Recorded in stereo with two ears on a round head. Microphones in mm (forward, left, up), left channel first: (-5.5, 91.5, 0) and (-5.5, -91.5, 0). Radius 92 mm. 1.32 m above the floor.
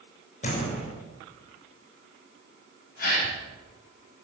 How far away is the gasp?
About 7 m.